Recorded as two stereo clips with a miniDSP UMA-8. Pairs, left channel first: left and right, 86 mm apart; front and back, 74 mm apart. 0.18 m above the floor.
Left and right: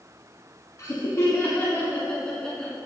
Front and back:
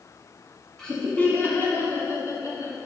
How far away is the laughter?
About 1.2 m.